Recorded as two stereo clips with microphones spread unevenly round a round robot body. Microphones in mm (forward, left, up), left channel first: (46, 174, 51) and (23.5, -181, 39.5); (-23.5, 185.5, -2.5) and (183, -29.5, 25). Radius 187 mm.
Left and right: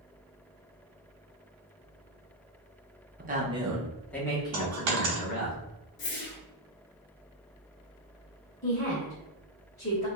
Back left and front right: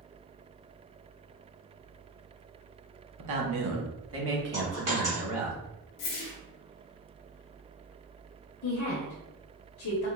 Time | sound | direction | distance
3.2 | a man speaking | 30° right | 1.0 m
4.5 | a dropped coin | 110° right | 0.9 m
6.0 | a whoosh | 145° left | 0.6 m
8.6 | a woman speaking | 155° left | 0.8 m